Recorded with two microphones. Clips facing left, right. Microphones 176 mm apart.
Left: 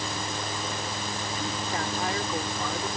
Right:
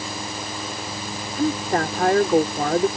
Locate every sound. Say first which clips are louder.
1.4 s a woman speaking: right 13 dB; 65° right (ahead or behind)